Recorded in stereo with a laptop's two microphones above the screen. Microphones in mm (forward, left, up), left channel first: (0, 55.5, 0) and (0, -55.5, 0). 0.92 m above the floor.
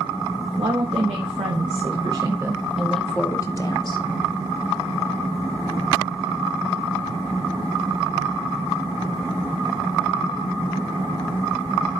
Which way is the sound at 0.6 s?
70° right (ahead or behind).